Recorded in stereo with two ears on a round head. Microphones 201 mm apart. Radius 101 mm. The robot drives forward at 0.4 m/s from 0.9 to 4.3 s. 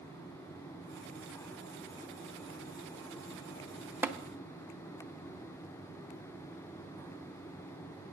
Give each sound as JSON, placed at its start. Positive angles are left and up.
{"t": 4.0, "sound": "tapping", "side_deg": -10, "distance_m": 0.6}